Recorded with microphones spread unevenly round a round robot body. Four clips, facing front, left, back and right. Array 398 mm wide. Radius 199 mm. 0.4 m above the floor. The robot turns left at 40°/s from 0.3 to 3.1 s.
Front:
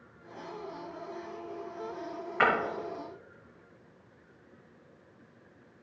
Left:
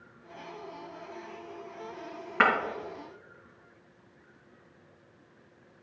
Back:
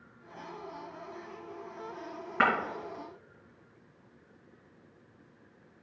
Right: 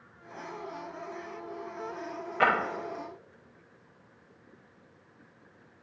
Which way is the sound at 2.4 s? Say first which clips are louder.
Left 1 dB, front 1 dB; 145° left.